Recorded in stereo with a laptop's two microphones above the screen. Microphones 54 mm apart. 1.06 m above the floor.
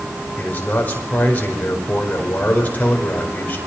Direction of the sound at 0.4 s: 30° left (ahead or behind).